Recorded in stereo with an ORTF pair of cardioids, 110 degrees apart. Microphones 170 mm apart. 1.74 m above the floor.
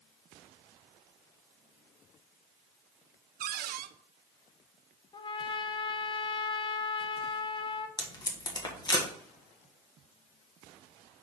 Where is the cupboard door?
60° right, 0.6 m.